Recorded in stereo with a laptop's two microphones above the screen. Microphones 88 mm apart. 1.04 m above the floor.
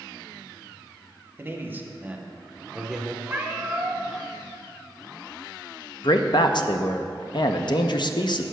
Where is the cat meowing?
15° right (ahead or behind), 0.9 m.